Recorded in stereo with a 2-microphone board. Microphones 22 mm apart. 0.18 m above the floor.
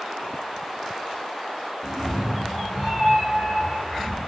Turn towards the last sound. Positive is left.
turn(degrees=-35)  # may be behind; listen again after turning